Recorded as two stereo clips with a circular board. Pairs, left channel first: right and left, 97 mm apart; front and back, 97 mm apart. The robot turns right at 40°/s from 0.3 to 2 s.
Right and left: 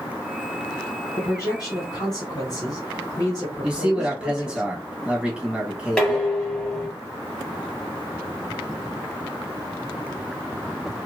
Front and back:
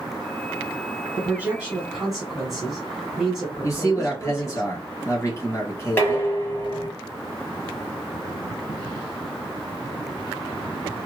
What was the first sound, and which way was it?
A man speaking, 130° right.